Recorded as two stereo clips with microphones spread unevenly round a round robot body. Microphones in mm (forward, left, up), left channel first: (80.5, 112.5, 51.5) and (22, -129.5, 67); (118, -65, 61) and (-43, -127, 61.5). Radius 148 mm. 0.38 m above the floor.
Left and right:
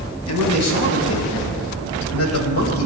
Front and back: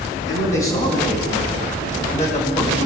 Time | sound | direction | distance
0.3 | a man speaking | 75° left | 3.5 m